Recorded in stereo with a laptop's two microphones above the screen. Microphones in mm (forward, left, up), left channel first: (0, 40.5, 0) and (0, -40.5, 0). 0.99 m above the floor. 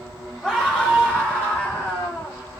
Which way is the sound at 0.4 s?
5° left (ahead or behind).